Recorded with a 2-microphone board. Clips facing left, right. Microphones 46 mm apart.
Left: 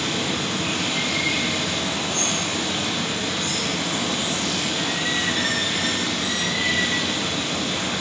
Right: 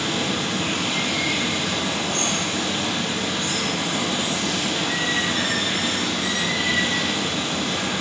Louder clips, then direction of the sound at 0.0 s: Right 1 dB; 45° right (ahead or behind).